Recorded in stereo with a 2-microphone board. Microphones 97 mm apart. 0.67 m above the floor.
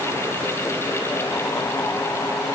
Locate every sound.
Only background noise.